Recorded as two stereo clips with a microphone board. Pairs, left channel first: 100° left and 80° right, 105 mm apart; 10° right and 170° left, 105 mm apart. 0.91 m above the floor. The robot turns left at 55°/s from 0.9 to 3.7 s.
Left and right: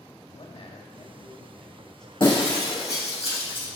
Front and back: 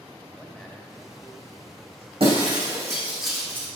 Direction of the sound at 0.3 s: 80° left.